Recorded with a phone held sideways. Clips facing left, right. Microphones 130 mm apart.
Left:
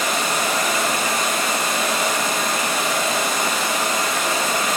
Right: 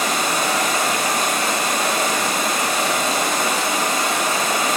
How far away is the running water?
About 1.3 m.